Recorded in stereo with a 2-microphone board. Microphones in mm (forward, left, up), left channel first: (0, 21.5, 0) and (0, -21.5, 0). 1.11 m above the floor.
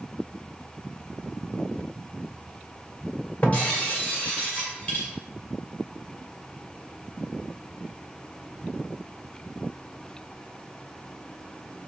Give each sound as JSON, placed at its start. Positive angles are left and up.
{"t": 3.4, "sound": "breaking glass", "side_deg": 40, "distance_m": 2.0}